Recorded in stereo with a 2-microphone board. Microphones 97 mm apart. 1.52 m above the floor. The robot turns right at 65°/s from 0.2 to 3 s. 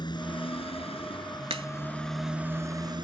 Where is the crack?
80° right; by 1.7 s 70° right (ahead or behind).